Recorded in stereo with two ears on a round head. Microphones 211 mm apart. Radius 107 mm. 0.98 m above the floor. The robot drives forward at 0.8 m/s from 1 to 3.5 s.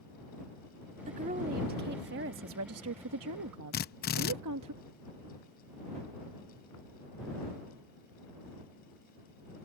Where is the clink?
No clink in this recording.